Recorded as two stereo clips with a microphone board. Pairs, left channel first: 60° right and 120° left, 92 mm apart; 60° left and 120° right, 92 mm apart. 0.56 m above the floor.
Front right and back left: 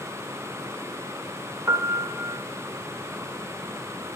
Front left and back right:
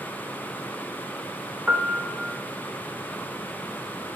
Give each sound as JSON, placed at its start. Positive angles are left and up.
{"t": 1.7, "sound": "a piano", "azimuth_deg": 170, "distance_m": 0.6}